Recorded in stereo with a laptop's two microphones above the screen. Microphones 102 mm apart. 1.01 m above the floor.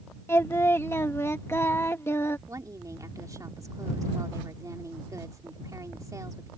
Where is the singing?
25° left (ahead or behind).